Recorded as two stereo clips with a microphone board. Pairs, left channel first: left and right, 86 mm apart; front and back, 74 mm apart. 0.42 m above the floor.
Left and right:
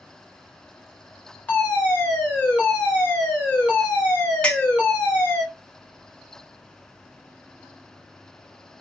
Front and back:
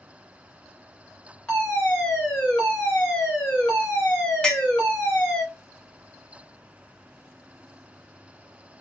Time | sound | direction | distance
1.5 | a fire alarm | 65° left | 1.7 m
4.4 | a clink | 50° left | 0.7 m